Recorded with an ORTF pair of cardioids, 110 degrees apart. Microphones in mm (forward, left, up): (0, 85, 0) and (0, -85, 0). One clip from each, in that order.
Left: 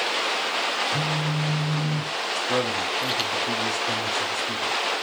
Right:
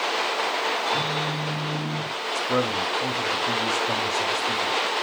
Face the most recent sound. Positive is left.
turn(degrees=-10)